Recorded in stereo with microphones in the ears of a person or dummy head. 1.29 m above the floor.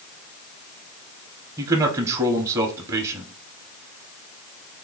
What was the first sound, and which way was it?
A man speaking, 20° right (ahead or behind).